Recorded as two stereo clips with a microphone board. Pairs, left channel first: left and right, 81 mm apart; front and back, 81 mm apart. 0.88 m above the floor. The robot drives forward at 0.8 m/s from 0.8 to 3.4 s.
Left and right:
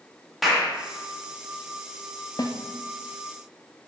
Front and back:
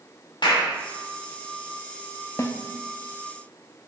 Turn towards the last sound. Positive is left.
turn(degrees=135)